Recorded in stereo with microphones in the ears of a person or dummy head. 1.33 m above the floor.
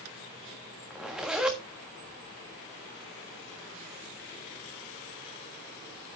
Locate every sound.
0.9 s a zipper: 5° right (ahead or behind), 1.4 m